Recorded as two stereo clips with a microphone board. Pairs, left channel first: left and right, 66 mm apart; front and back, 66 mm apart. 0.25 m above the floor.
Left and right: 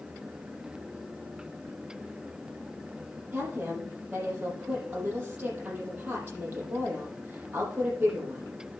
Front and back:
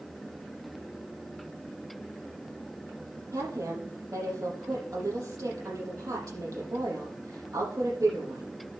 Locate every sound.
3.3 s a woman speaking: 155° right, 7 m